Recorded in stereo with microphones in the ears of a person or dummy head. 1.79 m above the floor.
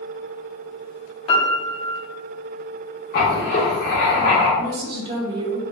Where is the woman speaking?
25° right (ahead or behind), 0.7 m.